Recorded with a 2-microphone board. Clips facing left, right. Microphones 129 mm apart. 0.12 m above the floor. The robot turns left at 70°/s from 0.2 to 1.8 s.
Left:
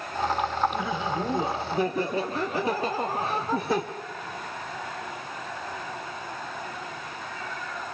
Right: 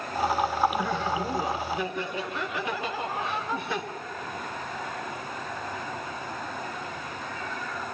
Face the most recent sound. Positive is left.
turn(degrees=105)